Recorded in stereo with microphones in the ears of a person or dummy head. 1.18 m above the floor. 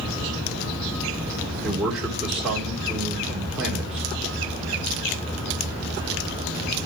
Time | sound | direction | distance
1.6 | a man speaking | 5° right (ahead or behind) | 2.5 m